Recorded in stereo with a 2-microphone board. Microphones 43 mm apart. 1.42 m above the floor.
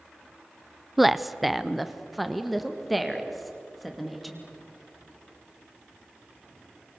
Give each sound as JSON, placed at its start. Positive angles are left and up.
{"t": 1.0, "sound": "a woman speaking", "side_deg": -5, "distance_m": 0.5}